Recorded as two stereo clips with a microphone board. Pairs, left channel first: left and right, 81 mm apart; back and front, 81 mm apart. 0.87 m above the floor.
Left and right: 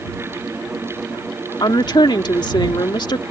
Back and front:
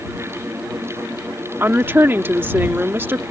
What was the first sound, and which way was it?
A woman speaking, 65° left.